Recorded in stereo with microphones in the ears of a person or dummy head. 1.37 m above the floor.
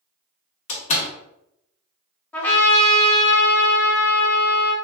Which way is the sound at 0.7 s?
40° left (ahead or behind).